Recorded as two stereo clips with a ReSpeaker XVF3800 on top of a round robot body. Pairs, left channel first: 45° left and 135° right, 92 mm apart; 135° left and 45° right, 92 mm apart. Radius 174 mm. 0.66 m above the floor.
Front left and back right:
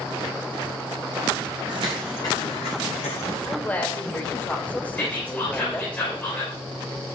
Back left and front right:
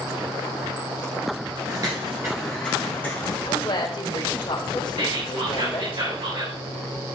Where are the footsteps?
100° right, 0.9 m; by 3.4 s 65° left, 1.8 m.